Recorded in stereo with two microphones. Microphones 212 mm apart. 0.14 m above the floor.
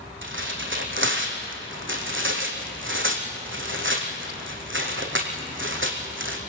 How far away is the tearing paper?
About 4 m.